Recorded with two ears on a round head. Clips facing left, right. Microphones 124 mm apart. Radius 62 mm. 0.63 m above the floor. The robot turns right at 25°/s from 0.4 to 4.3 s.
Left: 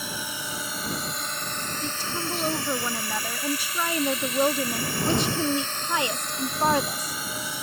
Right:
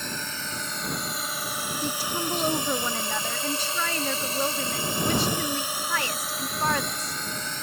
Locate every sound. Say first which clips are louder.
0.0 s a drone: left 1 dB; 10° left (ahead or behind)
1.8 s a woman speaking: right 3 dB; 10° right (ahead or behind); by 7.2 s 20° left (ahead or behind)